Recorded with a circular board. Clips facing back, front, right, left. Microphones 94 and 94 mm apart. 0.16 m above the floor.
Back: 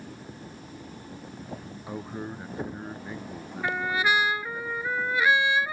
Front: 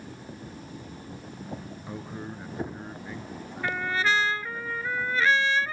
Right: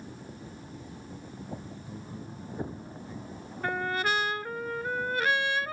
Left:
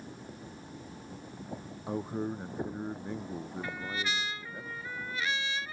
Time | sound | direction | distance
1.9 | a man speaking | 105° left | ?
3.6 | a trumpet | 105° right | ?